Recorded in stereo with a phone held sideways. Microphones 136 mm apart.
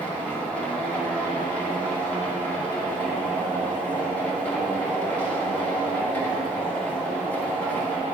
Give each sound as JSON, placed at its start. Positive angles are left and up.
{"t": 0.0, "sound": "a machine running", "side_deg": 10, "distance_m": 2.5}